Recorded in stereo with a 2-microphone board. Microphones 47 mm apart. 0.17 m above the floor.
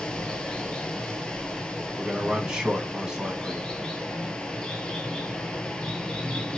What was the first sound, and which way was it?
Running water, 20° left (ahead or behind).